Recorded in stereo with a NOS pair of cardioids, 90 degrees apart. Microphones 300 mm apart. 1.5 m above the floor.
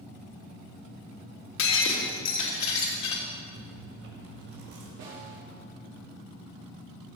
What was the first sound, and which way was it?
Breaking glass, 65° left.